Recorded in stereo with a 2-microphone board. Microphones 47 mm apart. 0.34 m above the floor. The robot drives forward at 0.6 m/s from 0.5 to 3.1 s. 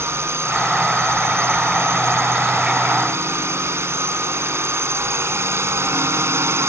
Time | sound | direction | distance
0.0 | a drone | 65° right (ahead or behind) | ?